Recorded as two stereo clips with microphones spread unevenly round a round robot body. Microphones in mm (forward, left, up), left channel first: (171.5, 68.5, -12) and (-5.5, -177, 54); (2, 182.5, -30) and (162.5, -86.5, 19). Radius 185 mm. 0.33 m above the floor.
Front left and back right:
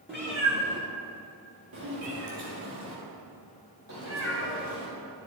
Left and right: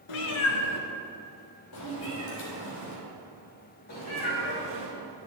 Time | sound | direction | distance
0.1 | a cat meowing | 145° left | 0.7 m